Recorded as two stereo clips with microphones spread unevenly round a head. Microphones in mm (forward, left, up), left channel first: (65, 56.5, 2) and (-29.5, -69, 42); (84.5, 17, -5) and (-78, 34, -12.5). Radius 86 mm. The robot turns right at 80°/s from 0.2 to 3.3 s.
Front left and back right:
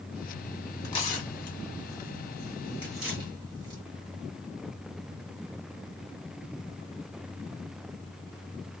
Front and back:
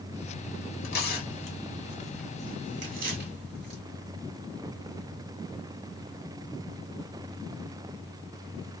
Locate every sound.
0.8 s tearing paper: 20° right, 1.8 m; by 3.8 s straight behind, 1.8 m